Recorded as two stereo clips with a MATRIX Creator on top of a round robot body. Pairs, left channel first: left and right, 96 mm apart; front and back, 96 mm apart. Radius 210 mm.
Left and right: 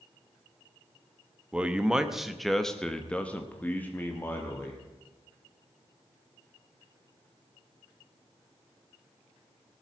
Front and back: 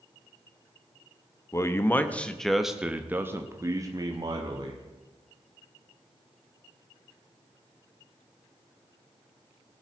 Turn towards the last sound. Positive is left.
turn(degrees=155)